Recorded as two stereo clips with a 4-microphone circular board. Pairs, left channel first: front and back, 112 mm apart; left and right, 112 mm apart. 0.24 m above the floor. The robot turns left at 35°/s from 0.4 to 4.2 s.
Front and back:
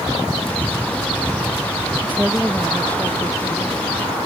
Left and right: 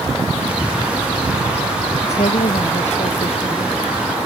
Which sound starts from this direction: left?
A woman speaking, at 2.0 s.